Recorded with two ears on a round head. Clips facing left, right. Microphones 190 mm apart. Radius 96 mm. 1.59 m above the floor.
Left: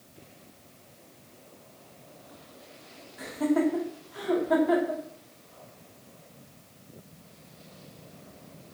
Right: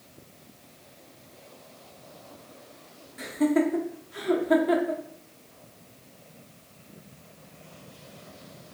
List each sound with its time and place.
3.2 s laughter: 35° right (ahead or behind), 1.2 m